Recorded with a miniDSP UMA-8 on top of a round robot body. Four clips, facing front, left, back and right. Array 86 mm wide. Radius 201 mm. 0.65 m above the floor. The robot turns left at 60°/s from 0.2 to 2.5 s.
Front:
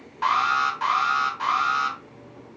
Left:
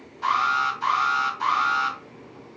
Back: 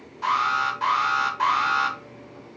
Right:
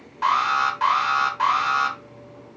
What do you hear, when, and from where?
0.2 s an alarm: 40° right, 2.0 m; by 2.0 s 145° right, 2.0 m